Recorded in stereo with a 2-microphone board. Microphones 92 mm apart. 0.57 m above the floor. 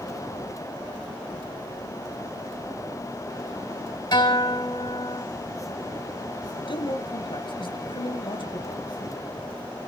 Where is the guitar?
50° left (ahead or behind), 4 m.